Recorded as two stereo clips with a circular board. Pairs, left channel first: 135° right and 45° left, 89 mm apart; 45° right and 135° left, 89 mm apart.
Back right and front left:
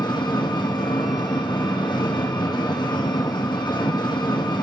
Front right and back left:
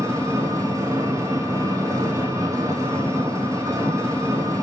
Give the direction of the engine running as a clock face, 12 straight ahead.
6 o'clock.